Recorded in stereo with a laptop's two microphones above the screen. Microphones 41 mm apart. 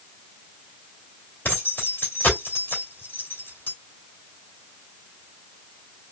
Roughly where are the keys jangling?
Left.